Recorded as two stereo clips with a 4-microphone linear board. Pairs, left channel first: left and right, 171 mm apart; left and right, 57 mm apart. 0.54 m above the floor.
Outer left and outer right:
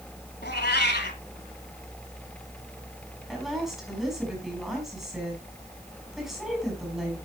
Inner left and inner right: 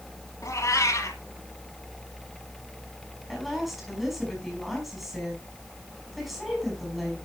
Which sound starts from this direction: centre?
A woman speaking, at 3.3 s.